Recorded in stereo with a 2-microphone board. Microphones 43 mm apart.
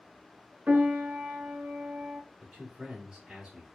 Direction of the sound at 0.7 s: 40° right (ahead or behind).